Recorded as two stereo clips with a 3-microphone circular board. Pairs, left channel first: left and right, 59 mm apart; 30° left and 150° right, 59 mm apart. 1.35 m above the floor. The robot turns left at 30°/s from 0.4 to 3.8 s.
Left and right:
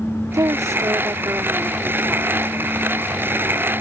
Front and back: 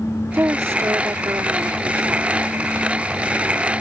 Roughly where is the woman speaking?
Right.